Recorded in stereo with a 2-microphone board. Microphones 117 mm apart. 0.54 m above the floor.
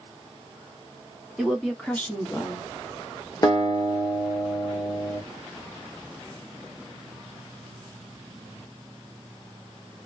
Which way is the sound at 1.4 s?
5° right (ahead or behind).